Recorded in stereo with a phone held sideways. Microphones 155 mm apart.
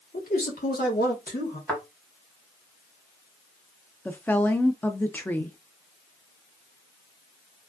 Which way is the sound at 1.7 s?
10° left (ahead or behind).